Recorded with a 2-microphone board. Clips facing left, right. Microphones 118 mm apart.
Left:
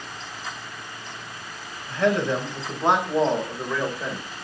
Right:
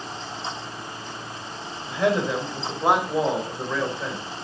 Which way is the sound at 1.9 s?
15° right (ahead or behind).